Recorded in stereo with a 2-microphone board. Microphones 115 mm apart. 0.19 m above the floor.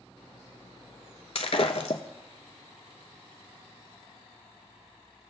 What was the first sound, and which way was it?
Breaking glass, 65° left (ahead or behind).